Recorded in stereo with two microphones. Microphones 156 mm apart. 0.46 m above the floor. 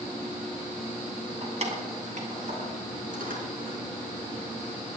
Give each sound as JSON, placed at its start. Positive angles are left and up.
{"t": 1.4, "sound": "keys jangling", "side_deg": -45, "distance_m": 2.5}